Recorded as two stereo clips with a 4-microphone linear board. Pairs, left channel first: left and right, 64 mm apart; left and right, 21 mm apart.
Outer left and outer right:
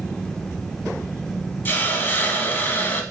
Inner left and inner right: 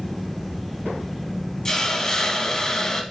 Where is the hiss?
35° left (ahead or behind), 0.5 m.